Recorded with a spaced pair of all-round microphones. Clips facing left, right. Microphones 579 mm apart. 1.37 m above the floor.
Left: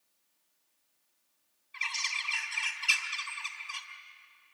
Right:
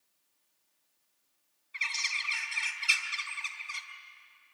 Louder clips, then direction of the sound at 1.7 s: Left 1 dB; 5° right (ahead or behind).